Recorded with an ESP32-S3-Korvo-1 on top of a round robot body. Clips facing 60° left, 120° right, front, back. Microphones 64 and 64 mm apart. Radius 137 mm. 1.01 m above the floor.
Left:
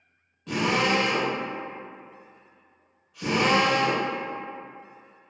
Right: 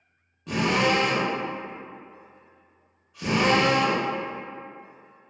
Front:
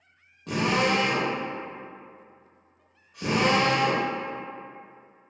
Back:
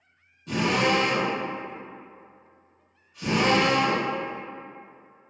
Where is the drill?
35° right, 0.6 m.